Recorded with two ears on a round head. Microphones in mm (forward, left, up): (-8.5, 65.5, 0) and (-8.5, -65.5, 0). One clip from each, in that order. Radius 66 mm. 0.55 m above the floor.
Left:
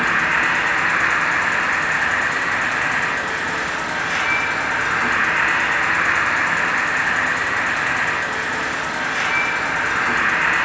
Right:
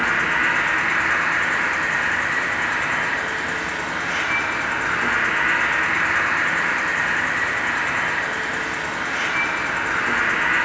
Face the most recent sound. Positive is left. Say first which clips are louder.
# left 2 dB
turn(degrees=65)  # may be behind; listen again after turning